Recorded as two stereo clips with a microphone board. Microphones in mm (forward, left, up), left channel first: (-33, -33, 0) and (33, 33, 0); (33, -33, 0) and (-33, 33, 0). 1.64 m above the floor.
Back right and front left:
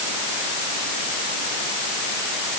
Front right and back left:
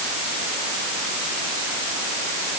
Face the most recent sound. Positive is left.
No sound to turn to.